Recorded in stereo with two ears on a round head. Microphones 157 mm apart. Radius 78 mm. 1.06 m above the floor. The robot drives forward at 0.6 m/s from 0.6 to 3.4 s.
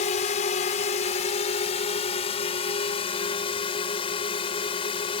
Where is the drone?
45° left (ahead or behind); by 5.2 s 35° left (ahead or behind).